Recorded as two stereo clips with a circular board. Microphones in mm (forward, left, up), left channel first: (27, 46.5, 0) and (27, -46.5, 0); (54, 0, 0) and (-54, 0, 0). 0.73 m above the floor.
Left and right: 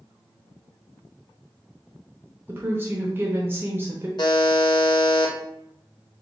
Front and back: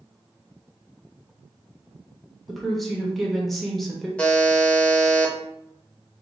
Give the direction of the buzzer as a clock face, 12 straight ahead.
9 o'clock.